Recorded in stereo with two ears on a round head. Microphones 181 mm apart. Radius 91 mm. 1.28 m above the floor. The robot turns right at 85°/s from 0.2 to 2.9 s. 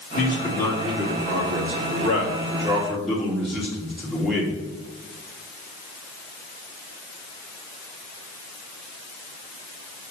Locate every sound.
0.1 s a man speaking: 130° left, 2 m; by 4.6 s straight ahead, 2 m